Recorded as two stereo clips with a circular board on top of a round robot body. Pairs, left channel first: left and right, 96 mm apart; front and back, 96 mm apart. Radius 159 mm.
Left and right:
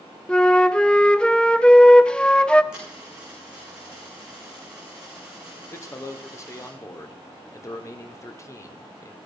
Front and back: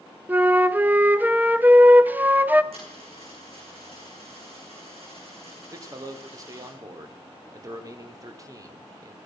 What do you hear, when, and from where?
0.3 s a flute: 155° left, 1.0 m
2.7 s a dropped coin: 170° right, 6 m
5.7 s a man speaking: 140° left, 2.0 m